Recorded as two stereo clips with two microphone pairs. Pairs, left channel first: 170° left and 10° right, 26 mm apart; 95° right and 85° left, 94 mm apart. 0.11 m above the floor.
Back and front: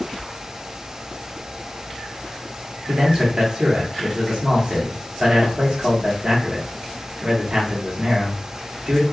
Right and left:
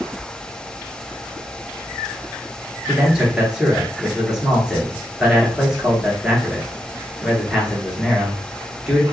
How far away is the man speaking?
About 1.3 m.